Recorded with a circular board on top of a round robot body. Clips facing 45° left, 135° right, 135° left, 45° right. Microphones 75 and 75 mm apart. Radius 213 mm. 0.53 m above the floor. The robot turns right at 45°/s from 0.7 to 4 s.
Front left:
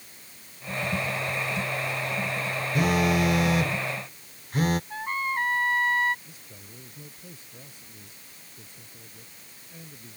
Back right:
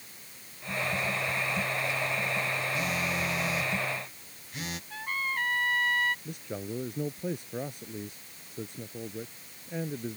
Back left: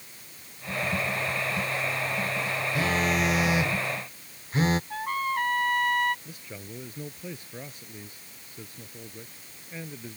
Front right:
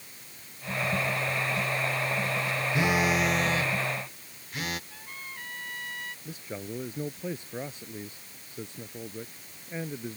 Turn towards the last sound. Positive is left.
turn(degrees=-110)